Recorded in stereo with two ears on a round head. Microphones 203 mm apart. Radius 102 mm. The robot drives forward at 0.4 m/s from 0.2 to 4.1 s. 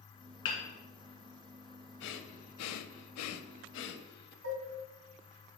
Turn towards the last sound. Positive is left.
turn(degrees=-65)  # may be behind; listen again after turning